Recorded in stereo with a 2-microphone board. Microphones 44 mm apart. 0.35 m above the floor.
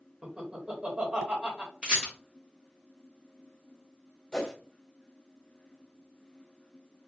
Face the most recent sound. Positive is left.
turn(degrees=15)  # may be behind; listen again after turning